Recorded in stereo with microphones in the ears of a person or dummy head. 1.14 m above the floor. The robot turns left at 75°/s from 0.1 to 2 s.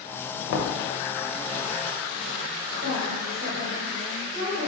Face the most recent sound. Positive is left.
turn(degrees=-60)  # may be behind; listen again after turning